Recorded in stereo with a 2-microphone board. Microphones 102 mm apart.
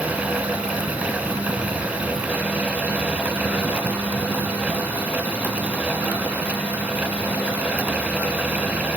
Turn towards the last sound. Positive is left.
No sound to turn to.